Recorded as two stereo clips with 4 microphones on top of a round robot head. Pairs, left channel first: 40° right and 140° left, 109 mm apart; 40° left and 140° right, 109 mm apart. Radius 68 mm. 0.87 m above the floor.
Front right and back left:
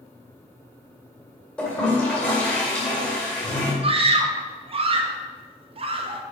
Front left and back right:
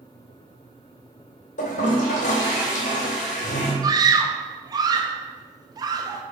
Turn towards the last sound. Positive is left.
turn(degrees=165)